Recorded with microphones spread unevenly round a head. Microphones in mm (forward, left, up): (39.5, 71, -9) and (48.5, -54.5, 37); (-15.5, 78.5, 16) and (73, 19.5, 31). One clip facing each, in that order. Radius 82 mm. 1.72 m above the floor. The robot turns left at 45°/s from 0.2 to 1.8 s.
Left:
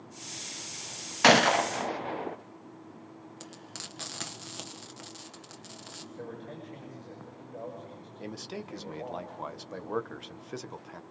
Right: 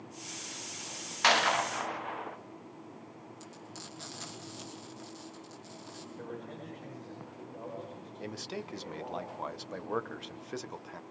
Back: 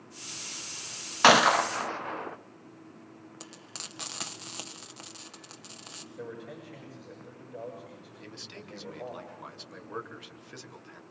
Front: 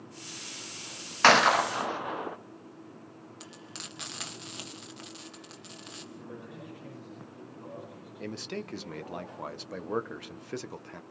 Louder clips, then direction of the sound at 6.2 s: Left 2 dB, back 6 dB; 160° left.